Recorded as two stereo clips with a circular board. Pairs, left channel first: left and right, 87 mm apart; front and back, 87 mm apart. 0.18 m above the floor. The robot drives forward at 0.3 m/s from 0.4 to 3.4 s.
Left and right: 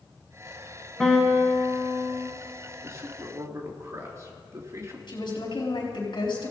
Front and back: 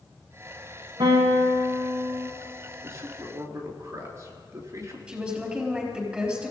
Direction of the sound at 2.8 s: 135° right.